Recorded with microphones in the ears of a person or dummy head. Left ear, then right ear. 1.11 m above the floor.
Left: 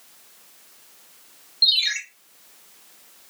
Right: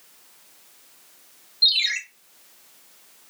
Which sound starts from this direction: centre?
A ringtone, at 1.6 s.